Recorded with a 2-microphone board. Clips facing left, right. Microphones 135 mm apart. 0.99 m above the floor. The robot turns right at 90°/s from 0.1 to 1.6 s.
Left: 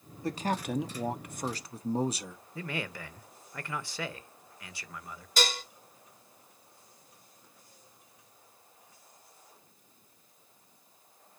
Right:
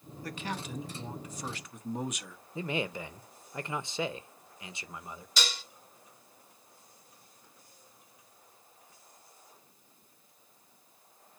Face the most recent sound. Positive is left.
turn(degrees=50)  # may be behind; listen again after turning